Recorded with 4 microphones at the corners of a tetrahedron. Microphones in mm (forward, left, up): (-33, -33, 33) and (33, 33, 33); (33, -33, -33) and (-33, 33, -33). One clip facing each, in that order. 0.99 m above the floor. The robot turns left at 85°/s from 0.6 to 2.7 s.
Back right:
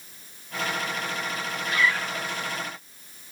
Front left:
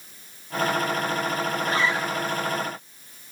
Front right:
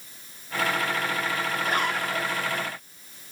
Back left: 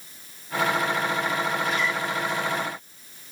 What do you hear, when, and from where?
1.6 s a zipper: straight ahead, 2 m; by 2.3 s 60° right, 2 m